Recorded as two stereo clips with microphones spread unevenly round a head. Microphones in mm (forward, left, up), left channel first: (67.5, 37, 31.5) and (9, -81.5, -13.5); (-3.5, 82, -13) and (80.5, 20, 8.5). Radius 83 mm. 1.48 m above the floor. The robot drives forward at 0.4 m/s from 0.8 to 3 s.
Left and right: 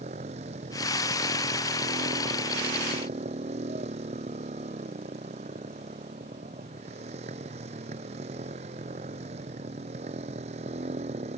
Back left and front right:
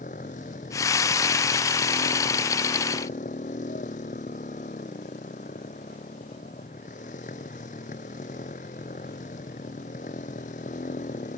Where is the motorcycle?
170° right.